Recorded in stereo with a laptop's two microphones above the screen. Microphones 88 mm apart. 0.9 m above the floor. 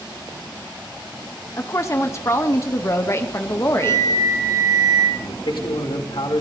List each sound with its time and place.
1.6 s a woman speaking: 35° left (ahead or behind), 0.7 m
3.8 s a flute: 45° right (ahead or behind), 7.5 m
5.2 s a man speaking: 75° left (ahead or behind), 2.5 m